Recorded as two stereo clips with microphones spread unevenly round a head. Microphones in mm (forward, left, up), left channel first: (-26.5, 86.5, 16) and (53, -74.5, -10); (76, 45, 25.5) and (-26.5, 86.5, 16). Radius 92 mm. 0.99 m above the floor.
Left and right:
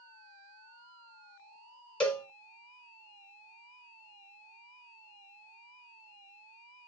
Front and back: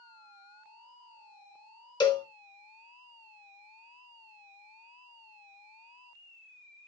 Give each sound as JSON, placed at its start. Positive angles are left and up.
{"t": 2.0, "sound": "a cowbell", "azimuth_deg": 30, "distance_m": 1.6}